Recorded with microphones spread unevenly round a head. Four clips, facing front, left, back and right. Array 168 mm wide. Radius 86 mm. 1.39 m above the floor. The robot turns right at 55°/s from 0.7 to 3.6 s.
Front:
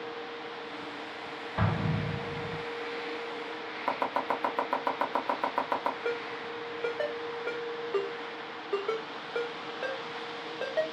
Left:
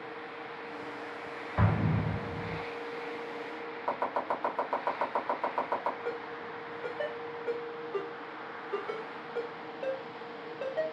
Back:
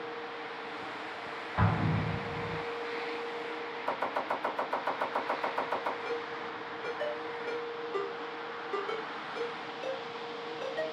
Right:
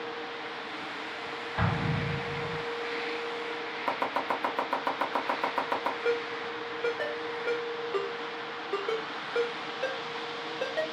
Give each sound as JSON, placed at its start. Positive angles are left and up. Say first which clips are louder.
{"t": 1.6, "sound": "an explosion", "louder": "left 1 dB, back 1 dB", "azimuth_deg": 115, "distance_m": 0.9}
{"t": 3.9, "sound": "chopping", "louder": "right 1 dB, front 3 dB", "azimuth_deg": -45, "distance_m": 0.9}
{"t": 6.0, "sound": "a ringtone", "louder": "right 7 dB, front 2 dB", "azimuth_deg": -35, "distance_m": 1.1}